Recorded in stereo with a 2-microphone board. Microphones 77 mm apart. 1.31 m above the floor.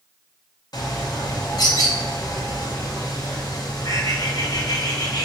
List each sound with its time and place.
0.7 s a bird: 60° left (ahead or behind), 0.8 m